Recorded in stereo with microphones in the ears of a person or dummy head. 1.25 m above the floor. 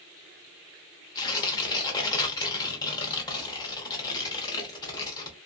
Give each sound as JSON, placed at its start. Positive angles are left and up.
{"t": 1.1, "sound": "tearing paper", "side_deg": 20, "distance_m": 0.7}